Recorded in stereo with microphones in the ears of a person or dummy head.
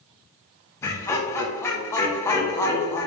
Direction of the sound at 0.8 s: 15° left (ahead or behind).